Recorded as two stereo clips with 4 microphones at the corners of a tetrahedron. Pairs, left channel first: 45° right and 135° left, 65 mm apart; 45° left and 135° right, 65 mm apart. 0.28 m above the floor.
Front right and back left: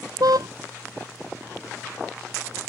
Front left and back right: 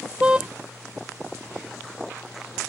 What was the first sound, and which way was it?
A car horn, 150° left.